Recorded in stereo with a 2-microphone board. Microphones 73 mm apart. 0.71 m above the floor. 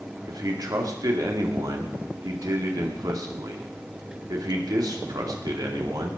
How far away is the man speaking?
About 2 m.